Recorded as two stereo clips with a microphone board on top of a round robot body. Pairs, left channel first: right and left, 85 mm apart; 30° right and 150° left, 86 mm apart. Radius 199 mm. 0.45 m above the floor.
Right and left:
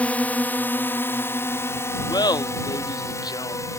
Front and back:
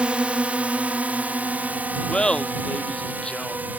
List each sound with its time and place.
0.0 s a drone: 145° right; by 3.8 s 140° right
2.1 s laughter: 105° right